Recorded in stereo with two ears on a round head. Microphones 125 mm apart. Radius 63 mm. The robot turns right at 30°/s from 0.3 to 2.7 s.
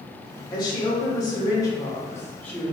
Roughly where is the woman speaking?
Left.